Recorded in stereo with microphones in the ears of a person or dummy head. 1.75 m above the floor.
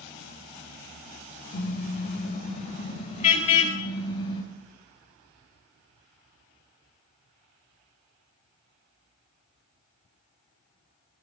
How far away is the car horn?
About 4 m.